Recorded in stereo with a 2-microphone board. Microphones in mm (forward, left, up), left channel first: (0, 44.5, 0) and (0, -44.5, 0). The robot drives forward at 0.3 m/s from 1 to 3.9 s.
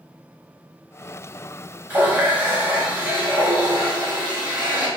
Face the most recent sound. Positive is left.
turn(degrees=-15)  # may be behind; listen again after turning